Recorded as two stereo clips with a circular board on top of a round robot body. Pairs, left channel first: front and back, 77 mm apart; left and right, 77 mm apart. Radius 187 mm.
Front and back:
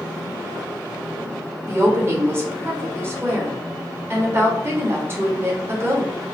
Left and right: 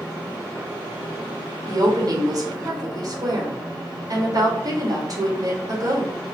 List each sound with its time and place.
1.7 s a woman speaking: 125° right, 2.0 m